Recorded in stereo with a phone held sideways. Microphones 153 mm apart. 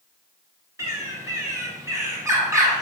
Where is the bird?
20° right (ahead or behind), 1.0 m.